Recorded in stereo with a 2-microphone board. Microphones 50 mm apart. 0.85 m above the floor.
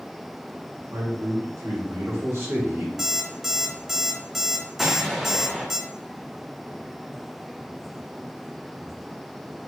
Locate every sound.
0.9 s a man speaking: 70° right (ahead or behind), 2.5 m
3.0 s an alarm clock: 5° right (ahead or behind), 1.1 m
4.8 s an explosion: centre (ahead or behind), 0.9 m